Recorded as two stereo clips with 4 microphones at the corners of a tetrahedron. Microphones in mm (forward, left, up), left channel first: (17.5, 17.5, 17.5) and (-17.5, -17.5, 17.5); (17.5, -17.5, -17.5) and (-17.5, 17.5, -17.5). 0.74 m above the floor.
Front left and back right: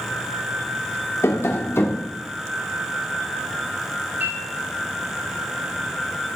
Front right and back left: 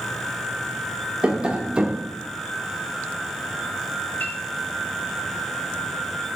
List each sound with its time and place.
1.2 s tapping: 70° left, 1.2 m
4.2 s a piano: 95° right, 6 m